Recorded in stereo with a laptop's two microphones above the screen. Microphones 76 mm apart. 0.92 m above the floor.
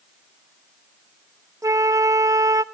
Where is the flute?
50° right (ahead or behind), 0.5 m.